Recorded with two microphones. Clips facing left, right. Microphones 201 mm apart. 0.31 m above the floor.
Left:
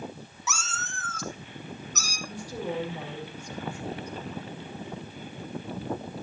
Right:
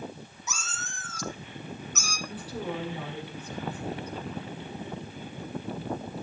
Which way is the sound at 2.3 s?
15° left (ahead or behind).